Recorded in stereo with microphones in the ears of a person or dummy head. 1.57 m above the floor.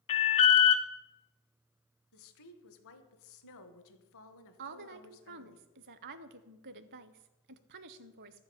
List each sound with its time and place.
0.1 s an alarm: 35° left (ahead or behind), 0.7 m
2.1 s a woman speaking: 75° left (ahead or behind), 1.0 m
4.6 s a woman speaking: 55° right (ahead or behind), 0.5 m